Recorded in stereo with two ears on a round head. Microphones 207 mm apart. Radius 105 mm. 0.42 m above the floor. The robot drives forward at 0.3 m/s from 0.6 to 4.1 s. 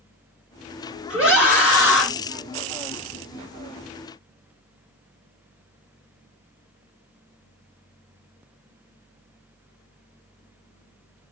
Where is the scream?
5° right (ahead or behind), 0.8 m.